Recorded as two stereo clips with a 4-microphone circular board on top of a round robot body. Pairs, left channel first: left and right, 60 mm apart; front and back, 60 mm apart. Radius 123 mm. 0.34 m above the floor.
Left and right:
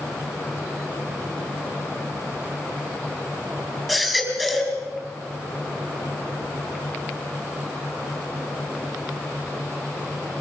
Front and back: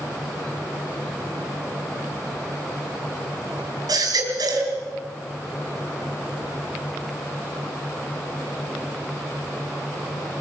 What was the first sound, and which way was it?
A baby crying, 175° left.